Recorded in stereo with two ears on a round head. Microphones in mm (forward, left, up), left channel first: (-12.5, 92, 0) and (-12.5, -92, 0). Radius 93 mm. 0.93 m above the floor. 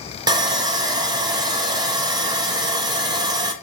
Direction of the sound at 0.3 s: 20° right (ahead or behind).